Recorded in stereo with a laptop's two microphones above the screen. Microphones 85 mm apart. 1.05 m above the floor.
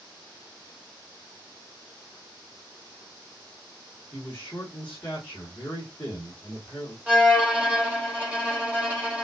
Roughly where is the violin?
Centre.